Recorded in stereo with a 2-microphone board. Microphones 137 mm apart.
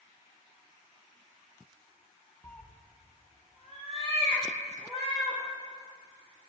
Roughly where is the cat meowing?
Centre.